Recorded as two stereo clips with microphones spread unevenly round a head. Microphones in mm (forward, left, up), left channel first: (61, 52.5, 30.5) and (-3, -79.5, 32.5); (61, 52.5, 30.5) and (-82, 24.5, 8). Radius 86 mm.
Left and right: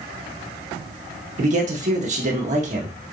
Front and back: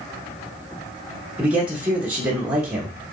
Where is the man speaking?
95° right, 1.3 m.